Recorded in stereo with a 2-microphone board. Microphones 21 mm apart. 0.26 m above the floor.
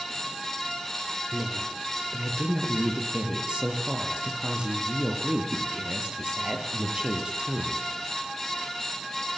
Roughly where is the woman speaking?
Right.